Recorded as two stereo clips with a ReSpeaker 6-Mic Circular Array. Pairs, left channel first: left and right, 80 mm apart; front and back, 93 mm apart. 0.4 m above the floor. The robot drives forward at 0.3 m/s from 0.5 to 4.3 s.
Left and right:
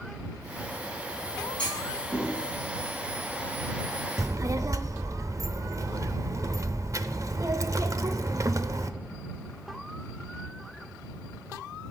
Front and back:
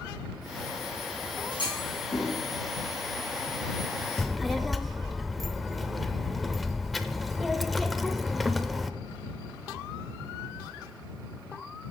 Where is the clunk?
15° left, 4 m; by 2.3 s 20° left, 3.5 m.